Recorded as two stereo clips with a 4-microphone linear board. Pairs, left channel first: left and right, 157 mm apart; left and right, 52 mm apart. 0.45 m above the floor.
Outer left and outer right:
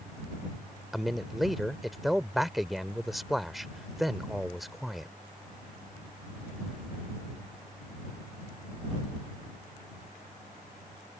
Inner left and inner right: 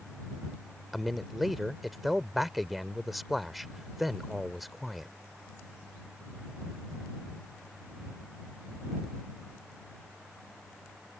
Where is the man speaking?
Centre (ahead or behind).